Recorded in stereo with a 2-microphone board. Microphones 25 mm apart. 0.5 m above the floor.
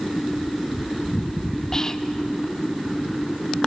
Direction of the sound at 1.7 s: 25° left (ahead or behind).